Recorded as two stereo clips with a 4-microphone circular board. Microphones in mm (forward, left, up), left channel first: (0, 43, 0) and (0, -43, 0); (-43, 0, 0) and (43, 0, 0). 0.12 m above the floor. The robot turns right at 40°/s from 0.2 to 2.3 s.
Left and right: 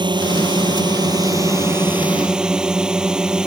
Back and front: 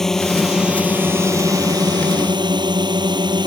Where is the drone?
95° right; by 3.5 s 10° right.